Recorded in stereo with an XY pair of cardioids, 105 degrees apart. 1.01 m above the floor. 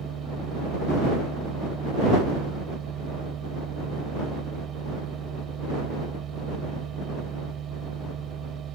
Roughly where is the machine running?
Ahead right.